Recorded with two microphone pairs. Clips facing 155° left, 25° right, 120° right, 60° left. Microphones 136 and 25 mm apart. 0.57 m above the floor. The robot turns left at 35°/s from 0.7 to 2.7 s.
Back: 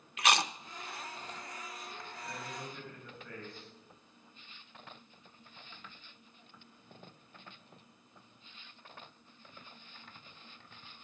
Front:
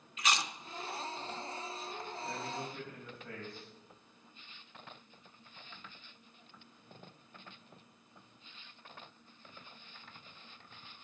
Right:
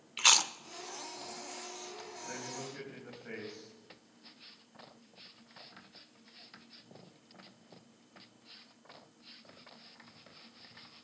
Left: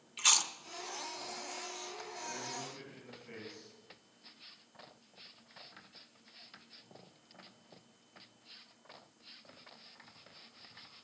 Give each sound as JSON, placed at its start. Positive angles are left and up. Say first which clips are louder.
{"t": 0.2, "sound": "chewing", "louder": "back 4 dB, right 4 dB", "azimuth_deg": 175, "distance_m": 0.5}
{"t": 2.2, "sound": "a man speaking", "louder": "front 2 dB, right 1 dB", "azimuth_deg": -80, "distance_m": 4.0}